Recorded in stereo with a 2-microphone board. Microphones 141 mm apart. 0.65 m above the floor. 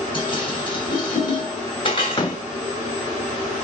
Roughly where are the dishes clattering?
Left.